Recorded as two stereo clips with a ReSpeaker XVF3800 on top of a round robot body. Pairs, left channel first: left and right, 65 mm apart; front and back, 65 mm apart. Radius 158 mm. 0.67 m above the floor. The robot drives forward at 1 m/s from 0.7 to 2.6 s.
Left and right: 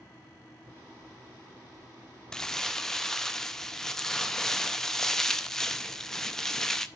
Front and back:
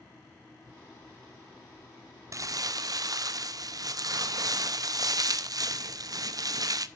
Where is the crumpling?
165° left, 0.6 m; by 6.9 s 170° left, 0.8 m.